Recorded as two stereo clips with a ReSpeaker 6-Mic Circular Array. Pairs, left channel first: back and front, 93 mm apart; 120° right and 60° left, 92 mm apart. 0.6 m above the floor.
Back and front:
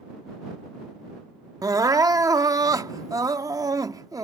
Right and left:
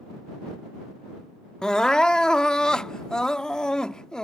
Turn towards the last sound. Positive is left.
turn(degrees=-40)